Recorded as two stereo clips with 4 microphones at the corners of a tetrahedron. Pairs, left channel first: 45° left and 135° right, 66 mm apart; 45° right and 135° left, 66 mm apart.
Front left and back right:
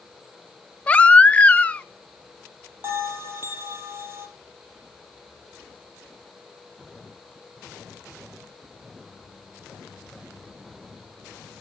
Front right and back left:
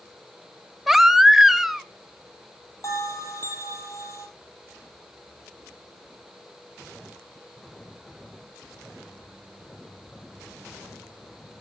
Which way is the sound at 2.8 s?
85° right.